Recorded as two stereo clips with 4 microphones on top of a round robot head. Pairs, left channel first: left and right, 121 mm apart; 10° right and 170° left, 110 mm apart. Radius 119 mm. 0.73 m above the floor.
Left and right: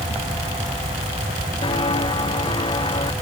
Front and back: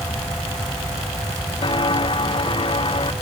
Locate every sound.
1.6 s footsteps: 35° left; by 3.1 s 30° left